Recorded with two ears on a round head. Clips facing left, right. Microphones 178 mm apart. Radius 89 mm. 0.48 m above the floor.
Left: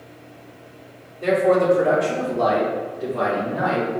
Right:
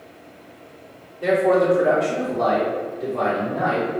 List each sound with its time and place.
1.2 s a man speaking: 5° right (ahead or behind), 0.9 m; by 3.9 s 10° left (ahead or behind), 1.6 m